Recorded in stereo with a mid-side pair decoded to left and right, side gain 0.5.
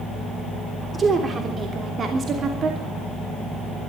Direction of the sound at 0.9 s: 35° right.